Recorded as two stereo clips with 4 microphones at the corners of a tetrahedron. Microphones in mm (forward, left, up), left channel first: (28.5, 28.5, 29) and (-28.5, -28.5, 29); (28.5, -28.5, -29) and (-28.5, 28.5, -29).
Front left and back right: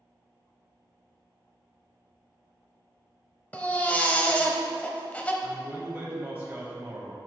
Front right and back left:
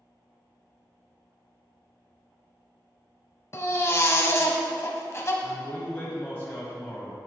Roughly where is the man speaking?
Right.